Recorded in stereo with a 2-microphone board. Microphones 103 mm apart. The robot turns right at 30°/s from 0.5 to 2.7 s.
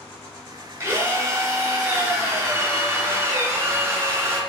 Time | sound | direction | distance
0.8 | a drill | 25° right (ahead or behind) | 0.9 m